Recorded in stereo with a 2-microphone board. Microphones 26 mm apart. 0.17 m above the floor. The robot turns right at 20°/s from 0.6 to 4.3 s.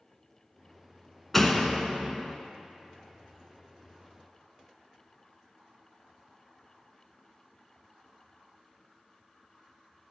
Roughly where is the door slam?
Centre.